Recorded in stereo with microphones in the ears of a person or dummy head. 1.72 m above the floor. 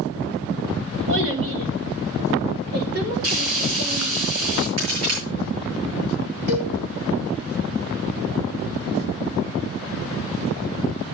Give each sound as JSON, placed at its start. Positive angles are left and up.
{"t": 1.1, "sound": "a child speaking", "side_deg": -65, "distance_m": 1.7}
{"t": 3.2, "sound": "frying", "side_deg": -65, "distance_m": 4.0}
{"t": 4.8, "sound": "a crack", "side_deg": -80, "distance_m": 8.5}
{"t": 6.5, "sound": "a cowbell", "side_deg": -35, "distance_m": 3.5}